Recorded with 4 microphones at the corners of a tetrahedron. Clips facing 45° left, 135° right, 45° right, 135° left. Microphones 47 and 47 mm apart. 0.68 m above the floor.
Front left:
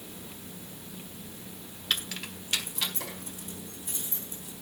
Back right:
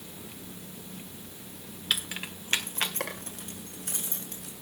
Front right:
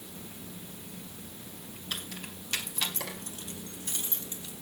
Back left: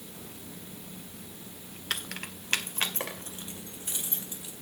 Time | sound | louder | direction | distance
1.9 | keys jangling | back right 1 dB, back left 4 dB | 140° left | 1.4 m